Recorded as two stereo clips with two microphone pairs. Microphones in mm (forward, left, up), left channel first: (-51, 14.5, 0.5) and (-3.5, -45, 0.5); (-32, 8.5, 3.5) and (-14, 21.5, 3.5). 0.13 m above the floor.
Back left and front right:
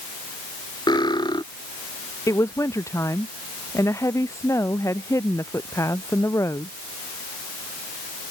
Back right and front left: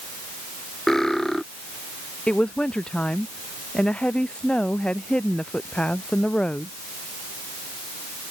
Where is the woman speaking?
Straight behind.